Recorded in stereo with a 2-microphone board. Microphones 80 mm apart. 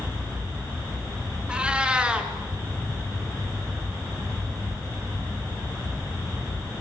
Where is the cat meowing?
15° right (ahead or behind), 1.9 m.